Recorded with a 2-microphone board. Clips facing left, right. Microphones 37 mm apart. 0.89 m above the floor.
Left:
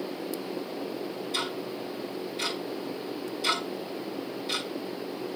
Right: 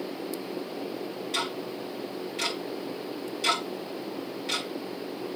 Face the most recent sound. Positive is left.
turn(degrees=-75)  # may be behind; listen again after turning